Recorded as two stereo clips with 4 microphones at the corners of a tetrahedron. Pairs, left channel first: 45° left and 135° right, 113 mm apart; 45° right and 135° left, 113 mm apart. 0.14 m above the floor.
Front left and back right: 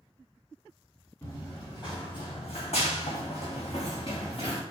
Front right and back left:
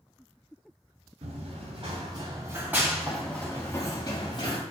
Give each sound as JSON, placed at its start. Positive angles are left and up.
{"t": 1.2, "sound": "running footsteps", "azimuth_deg": 105, "distance_m": 1.1}